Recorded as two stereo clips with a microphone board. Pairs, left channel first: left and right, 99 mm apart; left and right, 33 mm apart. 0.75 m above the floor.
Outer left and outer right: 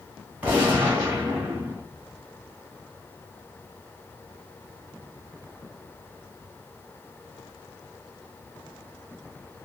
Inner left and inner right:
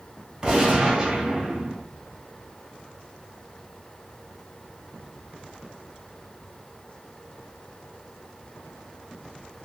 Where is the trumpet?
I don't hear a trumpet.